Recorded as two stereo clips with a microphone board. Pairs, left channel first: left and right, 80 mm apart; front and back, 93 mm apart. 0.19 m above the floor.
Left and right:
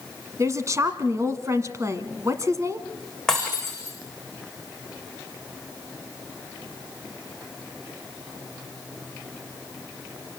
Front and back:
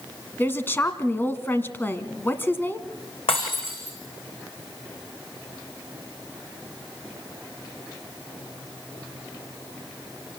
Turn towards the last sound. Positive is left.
turn(degrees=5)